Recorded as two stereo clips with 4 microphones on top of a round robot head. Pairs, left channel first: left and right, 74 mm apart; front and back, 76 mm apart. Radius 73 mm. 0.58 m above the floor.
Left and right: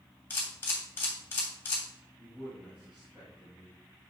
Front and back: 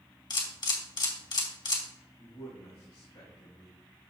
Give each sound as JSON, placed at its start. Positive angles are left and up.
{"t": 0.3, "sound": "a camera shutter", "azimuth_deg": 20, "distance_m": 3.0}
{"t": 2.2, "sound": "a man speaking", "azimuth_deg": -10, "distance_m": 4.0}